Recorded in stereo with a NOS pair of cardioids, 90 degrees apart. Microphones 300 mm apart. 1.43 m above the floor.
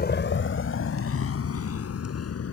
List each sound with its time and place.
0.0 s a vehicle: 30° left; by 2.5 s 50° left